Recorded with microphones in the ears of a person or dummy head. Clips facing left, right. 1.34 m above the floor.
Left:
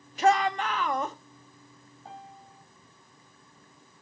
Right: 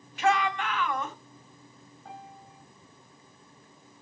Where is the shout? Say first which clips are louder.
Left 3 dB; 30° left (ahead or behind), 0.8 m.